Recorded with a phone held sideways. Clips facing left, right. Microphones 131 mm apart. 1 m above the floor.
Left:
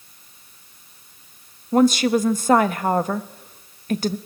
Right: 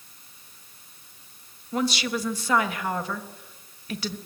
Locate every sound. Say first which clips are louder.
1.7 s a woman speaking: left 10 dB; 50° left (ahead or behind), 1.2 m